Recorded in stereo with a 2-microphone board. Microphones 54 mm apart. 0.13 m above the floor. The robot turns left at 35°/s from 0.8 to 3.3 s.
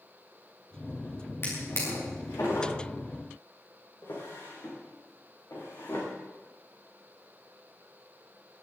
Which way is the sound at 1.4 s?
50° left (ahead or behind).